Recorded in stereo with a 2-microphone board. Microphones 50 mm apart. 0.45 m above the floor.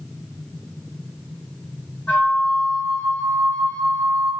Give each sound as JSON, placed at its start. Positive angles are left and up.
{"t": 2.1, "sound": "a flute", "side_deg": 40, "distance_m": 2.0}